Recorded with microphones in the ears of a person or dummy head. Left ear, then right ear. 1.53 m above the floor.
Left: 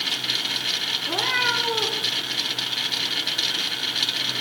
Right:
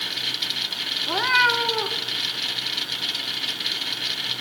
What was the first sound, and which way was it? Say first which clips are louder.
A cat meowing: right 5 dB; 65° right (ahead or behind).